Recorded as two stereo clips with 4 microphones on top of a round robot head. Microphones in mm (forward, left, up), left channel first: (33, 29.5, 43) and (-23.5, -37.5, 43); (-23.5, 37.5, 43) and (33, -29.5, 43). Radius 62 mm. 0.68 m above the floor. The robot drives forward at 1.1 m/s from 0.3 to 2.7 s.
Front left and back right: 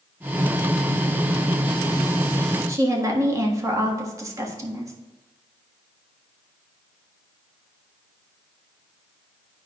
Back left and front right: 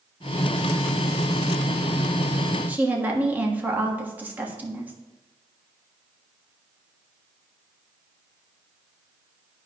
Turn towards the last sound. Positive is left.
turn(degrees=-110)